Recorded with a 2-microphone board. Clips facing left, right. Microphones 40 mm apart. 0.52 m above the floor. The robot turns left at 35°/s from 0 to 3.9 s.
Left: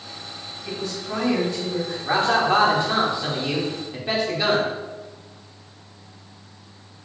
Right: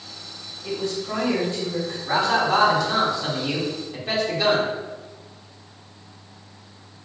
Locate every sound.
0.6 s a woman speaking: 60° right, 1.6 m; by 1.9 s 105° right, 1.6 m
2.0 s a man speaking: 70° left, 0.9 m; by 4.7 s 10° left, 0.9 m